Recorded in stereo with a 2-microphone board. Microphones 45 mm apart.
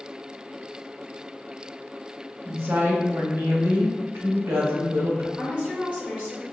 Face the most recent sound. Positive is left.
turn(degrees=-20)  # may be behind; listen again after turning